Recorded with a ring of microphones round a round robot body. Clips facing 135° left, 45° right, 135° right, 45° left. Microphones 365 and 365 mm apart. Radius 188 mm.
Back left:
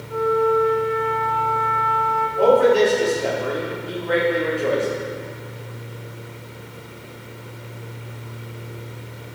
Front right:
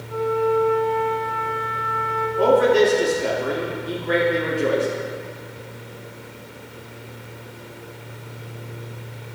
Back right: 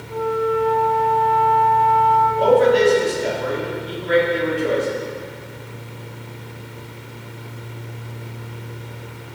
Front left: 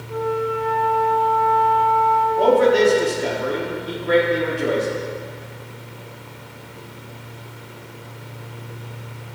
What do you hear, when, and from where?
0.1 s a flute: 110° left, 2.5 m
2.4 s a man speaking: 15° left, 1.4 m